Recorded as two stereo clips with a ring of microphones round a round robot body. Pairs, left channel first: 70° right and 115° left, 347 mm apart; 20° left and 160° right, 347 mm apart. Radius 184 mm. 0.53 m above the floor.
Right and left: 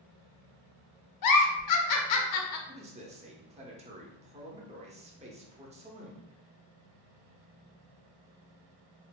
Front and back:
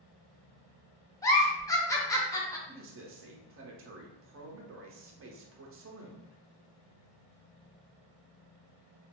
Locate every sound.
1.2 s a giggle: 55° right, 0.6 m
2.7 s a man speaking: 175° left, 0.8 m